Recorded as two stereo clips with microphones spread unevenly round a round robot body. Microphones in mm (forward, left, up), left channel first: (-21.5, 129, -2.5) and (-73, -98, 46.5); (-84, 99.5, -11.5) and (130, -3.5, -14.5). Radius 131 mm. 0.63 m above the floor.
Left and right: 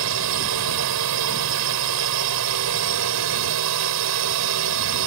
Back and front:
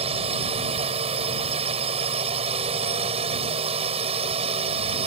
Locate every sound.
0.0 s a drone: 95° right